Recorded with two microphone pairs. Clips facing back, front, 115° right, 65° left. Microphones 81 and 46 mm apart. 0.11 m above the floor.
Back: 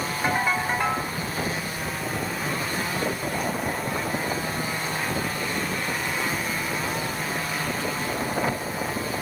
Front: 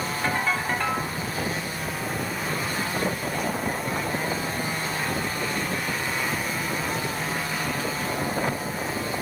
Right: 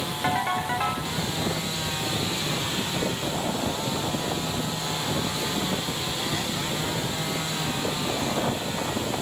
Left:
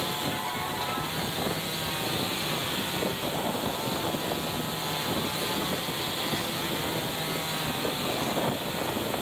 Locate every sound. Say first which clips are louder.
0.2 s a ringtone: back 2 dB, right 6 dB; 105° right, 5.5 m